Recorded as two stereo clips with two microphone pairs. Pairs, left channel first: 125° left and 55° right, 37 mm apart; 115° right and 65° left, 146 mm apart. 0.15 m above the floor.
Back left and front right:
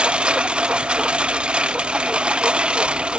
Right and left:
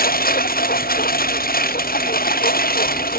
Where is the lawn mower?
115° right.